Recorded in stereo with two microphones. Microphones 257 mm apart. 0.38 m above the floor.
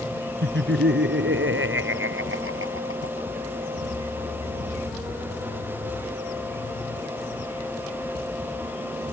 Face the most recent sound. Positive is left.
turn(degrees=-55)  # may be behind; listen again after turning